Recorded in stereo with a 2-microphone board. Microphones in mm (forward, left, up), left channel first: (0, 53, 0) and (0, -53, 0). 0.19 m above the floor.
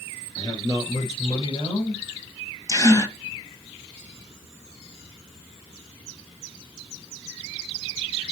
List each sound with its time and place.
0.3 s a man speaking: 35° left (ahead or behind), 5 m; by 2.0 s 50° left (ahead or behind), 5 m
2.7 s a gasp: 30° left (ahead or behind), 1.5 m